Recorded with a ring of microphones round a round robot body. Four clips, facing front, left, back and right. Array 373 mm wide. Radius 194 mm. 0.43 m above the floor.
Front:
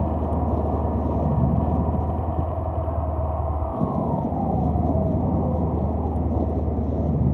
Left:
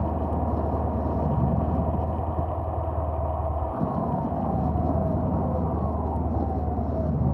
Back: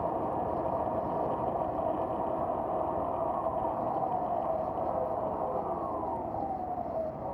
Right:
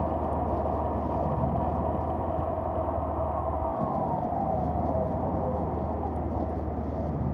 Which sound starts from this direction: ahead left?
A vehicle, at 0.0 s.